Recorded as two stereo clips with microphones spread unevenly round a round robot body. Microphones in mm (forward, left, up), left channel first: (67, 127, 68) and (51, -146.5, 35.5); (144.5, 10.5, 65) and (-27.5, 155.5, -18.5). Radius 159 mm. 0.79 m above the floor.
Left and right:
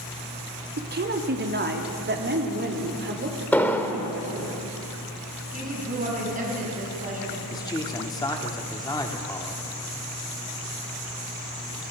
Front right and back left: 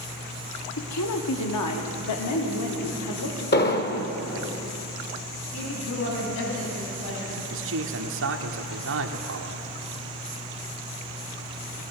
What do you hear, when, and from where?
0.8 s a woman speaking: 55° right, 1.7 m; by 4.5 s 45° right, 4 m
3.5 s an explosion: 5° left, 1.6 m
5.5 s a woman speaking: 35° right, 8 m
7.5 s a man speaking: 165° left, 1.4 m